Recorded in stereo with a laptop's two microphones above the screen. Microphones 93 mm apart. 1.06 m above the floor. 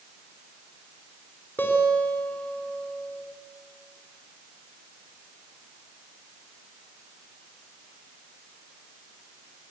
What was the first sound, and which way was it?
A guitar, 20° left (ahead or behind).